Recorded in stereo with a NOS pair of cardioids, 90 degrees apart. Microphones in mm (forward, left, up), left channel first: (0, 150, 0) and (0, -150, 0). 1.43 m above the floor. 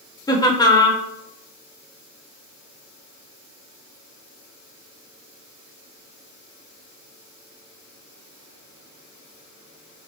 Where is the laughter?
15° left, 0.6 m.